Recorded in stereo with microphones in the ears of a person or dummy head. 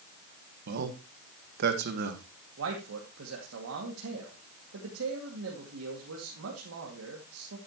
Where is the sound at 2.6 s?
75° right (ahead or behind), 2 m.